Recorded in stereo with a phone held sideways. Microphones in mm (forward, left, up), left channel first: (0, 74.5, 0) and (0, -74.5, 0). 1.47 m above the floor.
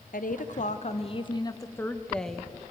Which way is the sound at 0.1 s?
70° left (ahead or behind).